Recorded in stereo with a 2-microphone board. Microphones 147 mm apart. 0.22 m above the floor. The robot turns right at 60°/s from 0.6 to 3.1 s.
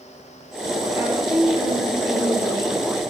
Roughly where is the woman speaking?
Ahead right.